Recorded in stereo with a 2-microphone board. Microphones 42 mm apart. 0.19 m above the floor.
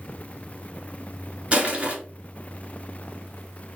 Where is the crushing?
30° right (ahead or behind), 1.0 m.